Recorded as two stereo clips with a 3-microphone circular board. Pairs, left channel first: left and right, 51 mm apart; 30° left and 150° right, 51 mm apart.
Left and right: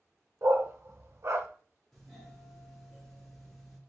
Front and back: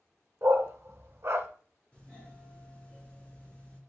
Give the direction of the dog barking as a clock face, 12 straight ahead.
4 o'clock.